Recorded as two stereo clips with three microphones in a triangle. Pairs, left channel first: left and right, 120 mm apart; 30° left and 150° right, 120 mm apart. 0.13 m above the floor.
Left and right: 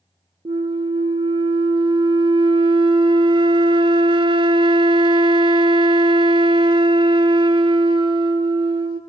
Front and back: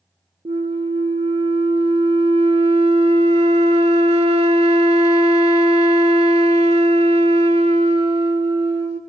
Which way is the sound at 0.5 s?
130° right.